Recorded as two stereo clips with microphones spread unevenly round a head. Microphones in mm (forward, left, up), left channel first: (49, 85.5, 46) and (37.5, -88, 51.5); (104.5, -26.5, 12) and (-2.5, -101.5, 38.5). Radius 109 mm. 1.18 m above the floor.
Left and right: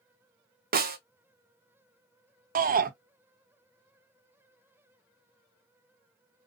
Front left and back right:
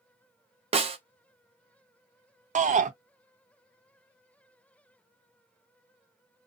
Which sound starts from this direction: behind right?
A shout, at 2.5 s.